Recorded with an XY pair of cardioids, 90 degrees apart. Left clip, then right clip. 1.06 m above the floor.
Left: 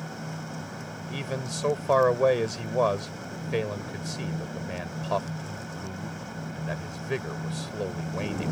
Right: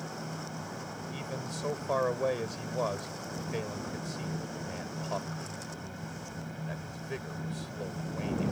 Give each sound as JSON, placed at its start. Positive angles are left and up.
{"t": 0.0, "sound": "a fan", "azimuth_deg": 40}
{"t": 1.1, "sound": "a man speaking", "azimuth_deg": 65}